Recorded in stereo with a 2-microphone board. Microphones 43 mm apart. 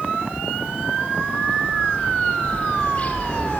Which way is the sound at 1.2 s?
40° left (ahead or behind).